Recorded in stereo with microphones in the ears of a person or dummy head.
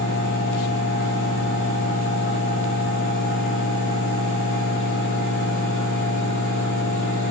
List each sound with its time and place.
0.0 s a fan: 60° left (ahead or behind), 1.6 m